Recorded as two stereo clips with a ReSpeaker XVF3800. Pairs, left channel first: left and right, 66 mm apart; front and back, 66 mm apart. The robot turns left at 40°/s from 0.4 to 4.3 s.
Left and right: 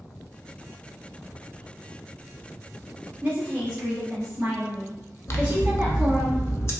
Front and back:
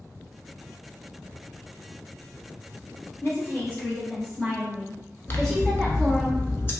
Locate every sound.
3.2 s a woman speaking: 20° right, 1.1 m; by 6.3 s 60° right, 1.1 m
5.3 s scissors: 50° left, 0.5 m